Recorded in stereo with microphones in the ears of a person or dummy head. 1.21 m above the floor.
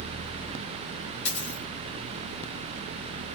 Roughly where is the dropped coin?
Left.